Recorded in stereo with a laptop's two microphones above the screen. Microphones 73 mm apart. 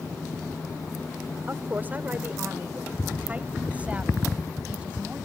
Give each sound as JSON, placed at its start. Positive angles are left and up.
{"t": 1.5, "sound": "a woman speaking", "side_deg": -30}